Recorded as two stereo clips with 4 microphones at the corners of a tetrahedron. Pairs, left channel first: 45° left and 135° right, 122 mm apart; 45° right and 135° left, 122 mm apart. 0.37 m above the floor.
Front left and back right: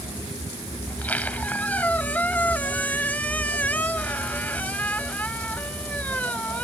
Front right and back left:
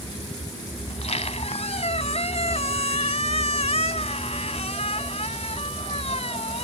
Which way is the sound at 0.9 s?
30° right.